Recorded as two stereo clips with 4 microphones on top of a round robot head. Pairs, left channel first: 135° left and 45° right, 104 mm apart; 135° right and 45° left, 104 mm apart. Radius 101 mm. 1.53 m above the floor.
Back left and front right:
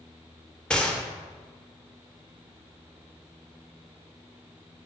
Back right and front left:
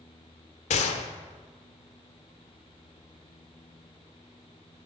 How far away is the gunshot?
About 0.9 m.